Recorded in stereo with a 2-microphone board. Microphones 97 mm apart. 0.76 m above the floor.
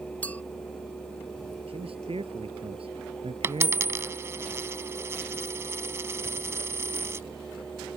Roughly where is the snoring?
No snoring in this recording.